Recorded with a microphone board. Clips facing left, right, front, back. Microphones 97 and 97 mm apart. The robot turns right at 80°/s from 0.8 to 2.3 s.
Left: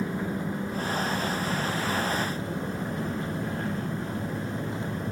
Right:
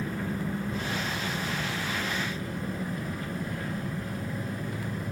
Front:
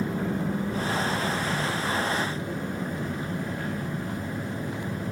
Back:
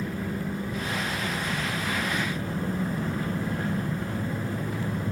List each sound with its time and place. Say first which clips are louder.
0.0 s an engine running: left 2 dB, front 3 dB; 15° left, 9.5 m; by 5.1 s 135° left, 9.5 m